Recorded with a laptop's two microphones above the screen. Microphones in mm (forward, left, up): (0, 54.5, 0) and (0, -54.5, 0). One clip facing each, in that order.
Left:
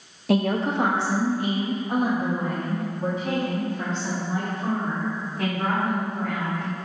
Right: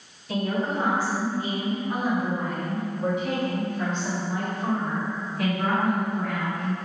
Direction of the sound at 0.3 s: 75° left (ahead or behind).